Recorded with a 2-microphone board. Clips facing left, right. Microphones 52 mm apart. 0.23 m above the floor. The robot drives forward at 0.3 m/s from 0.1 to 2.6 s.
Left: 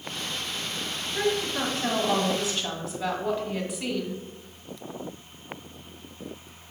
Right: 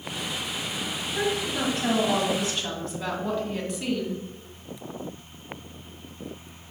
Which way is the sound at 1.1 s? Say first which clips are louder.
Left 1 dB; 5° left (ahead or behind).